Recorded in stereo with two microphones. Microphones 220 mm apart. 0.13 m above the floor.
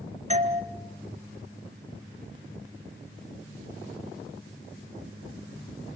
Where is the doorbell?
30° right (ahead or behind), 1.7 m.